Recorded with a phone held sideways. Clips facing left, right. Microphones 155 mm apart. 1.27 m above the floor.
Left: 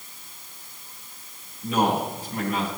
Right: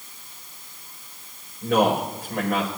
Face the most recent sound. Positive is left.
turn(degrees=-90)